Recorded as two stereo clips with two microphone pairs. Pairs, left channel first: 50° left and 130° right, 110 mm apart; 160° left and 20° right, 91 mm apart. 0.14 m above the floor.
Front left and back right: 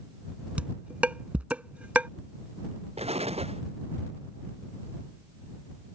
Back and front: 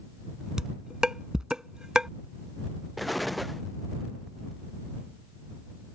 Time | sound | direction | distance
0.6 | dishes clattering | 80° right | ?
3.0 | an explosion | 105° right | ?